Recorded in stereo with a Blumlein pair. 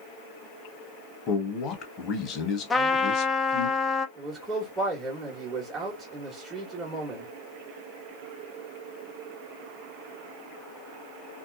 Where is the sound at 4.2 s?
15° right, 1.7 m.